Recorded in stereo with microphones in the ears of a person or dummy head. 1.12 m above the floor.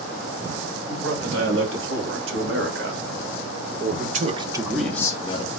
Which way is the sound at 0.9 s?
80° right.